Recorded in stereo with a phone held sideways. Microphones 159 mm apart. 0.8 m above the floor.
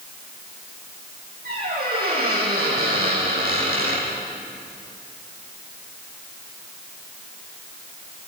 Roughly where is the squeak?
Right.